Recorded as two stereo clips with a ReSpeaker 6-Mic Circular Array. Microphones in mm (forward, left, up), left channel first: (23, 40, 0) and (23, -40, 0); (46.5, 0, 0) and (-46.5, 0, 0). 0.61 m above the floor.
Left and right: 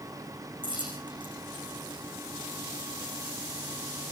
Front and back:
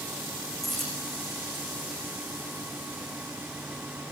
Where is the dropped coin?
85° right, 7.5 m.